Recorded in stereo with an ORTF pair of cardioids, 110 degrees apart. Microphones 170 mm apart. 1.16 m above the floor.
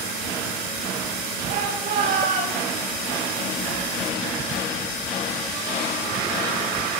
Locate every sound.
1.5 s a shout: 60° right, 9 m